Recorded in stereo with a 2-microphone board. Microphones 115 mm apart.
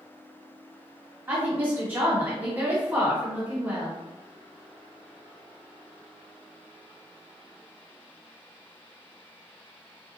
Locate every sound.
1.3 s a woman speaking: 15° right (ahead or behind), 1.4 m